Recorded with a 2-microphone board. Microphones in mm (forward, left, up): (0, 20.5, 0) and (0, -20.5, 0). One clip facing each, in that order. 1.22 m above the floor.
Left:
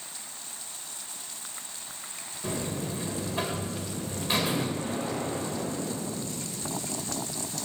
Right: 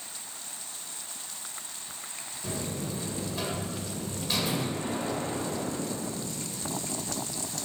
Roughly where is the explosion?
Right.